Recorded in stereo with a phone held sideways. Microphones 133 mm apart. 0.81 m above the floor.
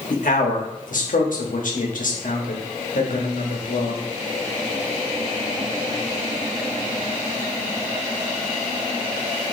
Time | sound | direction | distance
0.1 | a man speaking | 70° left (ahead or behind) | 1.0 m